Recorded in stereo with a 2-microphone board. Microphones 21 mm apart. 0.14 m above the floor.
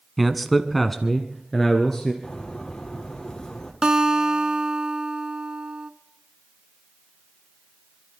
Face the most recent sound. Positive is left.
turn(degrees=-35)  # may be behind; listen again after turning